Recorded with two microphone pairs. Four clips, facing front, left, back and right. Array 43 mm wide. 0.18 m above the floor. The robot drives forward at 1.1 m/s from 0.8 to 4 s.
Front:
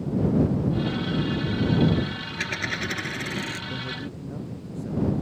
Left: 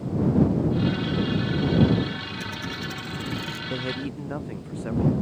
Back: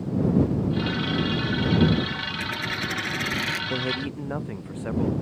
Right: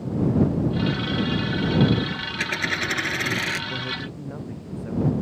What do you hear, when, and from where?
2.4 s a dropped coin: 60° right; by 3.6 s 125° right
3.7 s a man speaking: 155° left; by 5.1 s 160° left